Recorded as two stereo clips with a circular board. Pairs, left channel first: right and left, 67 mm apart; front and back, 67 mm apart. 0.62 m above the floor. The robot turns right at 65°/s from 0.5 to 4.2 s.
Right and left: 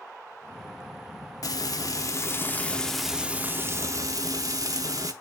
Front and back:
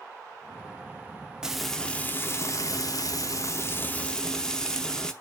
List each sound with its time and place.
1.4 s frying: 100° right, 0.7 m; by 5.1 s 80° left, 0.7 m